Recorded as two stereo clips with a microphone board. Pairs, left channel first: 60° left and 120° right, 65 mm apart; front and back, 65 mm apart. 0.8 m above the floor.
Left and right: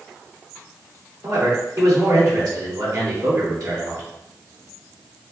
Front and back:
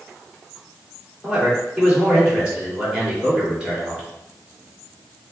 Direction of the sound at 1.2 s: 105° right.